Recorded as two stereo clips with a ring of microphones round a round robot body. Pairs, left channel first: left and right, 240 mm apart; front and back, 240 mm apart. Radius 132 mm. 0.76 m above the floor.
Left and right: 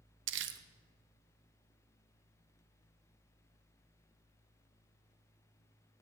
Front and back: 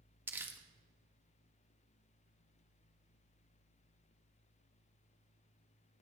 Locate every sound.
0.3 s crumpling: 100° right, 0.9 m